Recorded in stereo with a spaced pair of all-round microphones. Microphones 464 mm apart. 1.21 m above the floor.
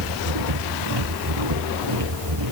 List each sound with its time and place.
0.0 s a machine running: 60° right (ahead or behind)